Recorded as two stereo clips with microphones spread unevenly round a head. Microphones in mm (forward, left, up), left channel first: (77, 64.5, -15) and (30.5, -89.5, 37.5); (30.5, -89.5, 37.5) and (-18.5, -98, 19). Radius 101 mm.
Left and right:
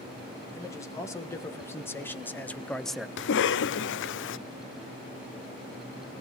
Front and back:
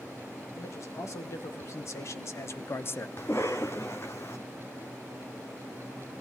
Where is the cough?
85° left, 0.6 m.